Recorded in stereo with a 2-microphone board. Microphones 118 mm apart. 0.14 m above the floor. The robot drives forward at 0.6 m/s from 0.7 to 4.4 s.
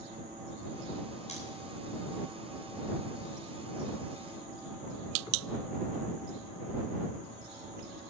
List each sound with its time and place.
1.3 s scissors: 65° left (ahead or behind), 9 m